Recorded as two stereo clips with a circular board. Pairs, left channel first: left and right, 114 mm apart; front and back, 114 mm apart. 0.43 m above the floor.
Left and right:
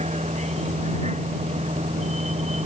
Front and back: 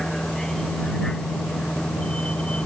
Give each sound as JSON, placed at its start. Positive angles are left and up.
{"t": 0.0, "sound": "a vehicle", "azimuth_deg": -85}